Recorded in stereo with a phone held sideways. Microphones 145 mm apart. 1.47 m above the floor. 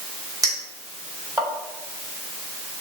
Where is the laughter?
No laughter in this recording.